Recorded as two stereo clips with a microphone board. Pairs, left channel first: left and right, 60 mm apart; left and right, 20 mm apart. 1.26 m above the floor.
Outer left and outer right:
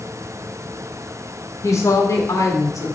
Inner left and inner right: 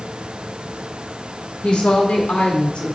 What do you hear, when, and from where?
1.6 s a woman speaking: 55° left (ahead or behind), 3.5 m; by 3.0 s 65° left (ahead or behind), 2.5 m